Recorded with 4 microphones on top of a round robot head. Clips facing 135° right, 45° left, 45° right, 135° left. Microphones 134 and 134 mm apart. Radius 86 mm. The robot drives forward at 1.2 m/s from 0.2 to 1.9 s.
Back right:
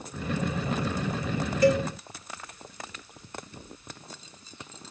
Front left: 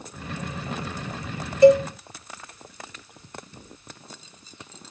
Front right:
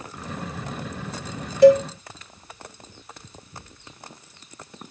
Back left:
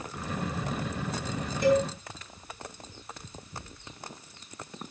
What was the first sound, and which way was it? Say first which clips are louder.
A cowbell: front left 9 dB, front right 11 dB; 20° right.